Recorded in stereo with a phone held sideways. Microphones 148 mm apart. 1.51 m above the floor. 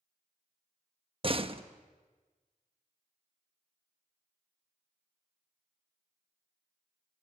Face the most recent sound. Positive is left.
turn(degrees=-40)  # may be behind; listen again after turning